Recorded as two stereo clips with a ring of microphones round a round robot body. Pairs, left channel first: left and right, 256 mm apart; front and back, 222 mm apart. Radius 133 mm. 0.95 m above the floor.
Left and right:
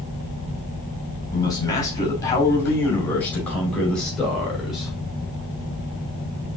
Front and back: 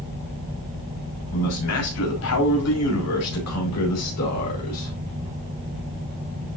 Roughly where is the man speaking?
Ahead.